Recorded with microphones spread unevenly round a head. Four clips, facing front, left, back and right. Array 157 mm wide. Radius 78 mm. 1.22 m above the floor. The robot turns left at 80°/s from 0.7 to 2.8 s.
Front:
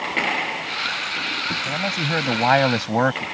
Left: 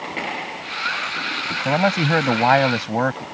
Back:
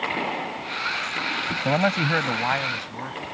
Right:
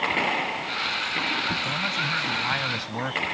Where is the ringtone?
I don't hear a ringtone.